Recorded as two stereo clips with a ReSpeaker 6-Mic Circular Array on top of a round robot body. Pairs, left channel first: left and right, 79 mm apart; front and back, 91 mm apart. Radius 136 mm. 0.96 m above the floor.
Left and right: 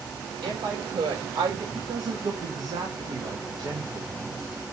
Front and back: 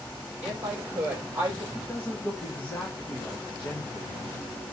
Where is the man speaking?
75° right, 2.5 m.